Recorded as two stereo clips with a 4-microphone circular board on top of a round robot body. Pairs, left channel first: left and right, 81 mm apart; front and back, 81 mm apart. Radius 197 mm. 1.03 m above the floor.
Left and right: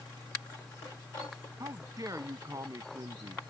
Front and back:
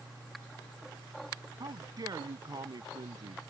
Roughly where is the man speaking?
Behind right.